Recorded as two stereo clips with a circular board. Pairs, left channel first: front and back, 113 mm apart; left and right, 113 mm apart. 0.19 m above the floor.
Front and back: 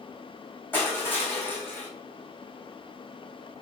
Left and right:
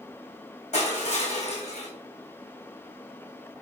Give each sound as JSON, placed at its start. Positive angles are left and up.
{"t": 0.7, "sound": "crushing", "azimuth_deg": 75, "distance_m": 1.8}